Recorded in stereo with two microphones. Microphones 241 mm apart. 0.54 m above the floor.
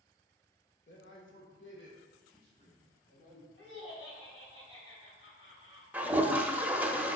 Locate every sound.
0.9 s a man speaking: 50° left (ahead or behind), 1.8 m; by 3.5 s 30° left (ahead or behind), 4 m
3.6 s laughter: 65° left (ahead or behind), 3 m
5.9 s a toilet flushing: 5° right (ahead or behind), 0.7 m